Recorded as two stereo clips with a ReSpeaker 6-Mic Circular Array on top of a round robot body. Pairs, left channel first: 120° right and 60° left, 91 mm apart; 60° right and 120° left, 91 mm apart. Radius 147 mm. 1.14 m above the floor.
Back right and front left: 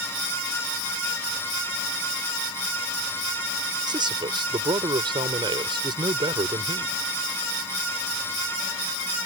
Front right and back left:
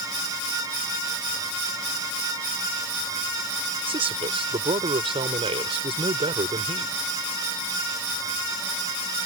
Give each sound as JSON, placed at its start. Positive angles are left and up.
{"t": 3.9, "sound": "a man speaking", "azimuth_deg": 100}